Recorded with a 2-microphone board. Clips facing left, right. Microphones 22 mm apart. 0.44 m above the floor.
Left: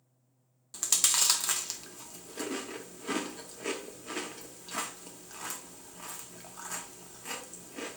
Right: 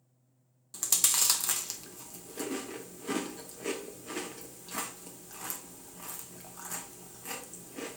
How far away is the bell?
I don't hear a bell.